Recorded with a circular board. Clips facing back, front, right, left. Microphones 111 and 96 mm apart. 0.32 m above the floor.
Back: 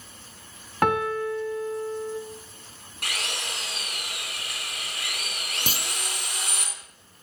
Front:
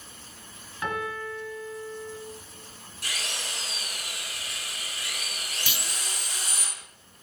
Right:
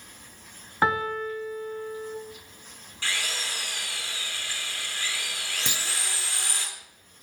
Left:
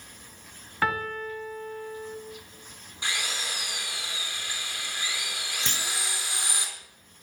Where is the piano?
160° right, 1.9 m.